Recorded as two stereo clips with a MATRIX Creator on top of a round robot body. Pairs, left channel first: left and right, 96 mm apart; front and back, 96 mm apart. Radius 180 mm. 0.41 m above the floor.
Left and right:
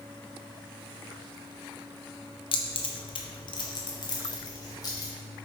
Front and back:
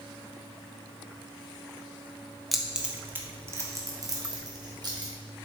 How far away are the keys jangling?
About 1.2 m.